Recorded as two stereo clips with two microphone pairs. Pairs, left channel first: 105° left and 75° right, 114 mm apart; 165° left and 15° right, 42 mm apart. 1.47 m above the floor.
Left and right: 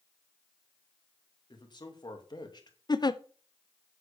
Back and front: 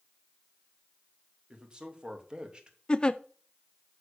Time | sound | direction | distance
1.5 | a man speaking | 55° left | 2.5 m
2.9 | a giggle | 110° left | 0.5 m